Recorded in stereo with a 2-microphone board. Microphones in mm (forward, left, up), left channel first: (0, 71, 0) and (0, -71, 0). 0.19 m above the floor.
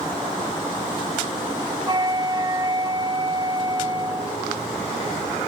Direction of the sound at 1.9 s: 30° right (ahead or behind).